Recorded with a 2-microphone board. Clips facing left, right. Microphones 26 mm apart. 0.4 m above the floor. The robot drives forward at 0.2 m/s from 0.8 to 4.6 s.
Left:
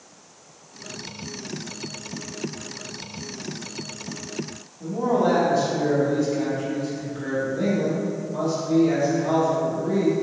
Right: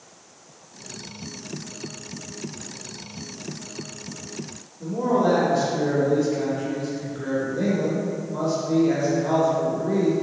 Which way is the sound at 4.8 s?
15° right (ahead or behind).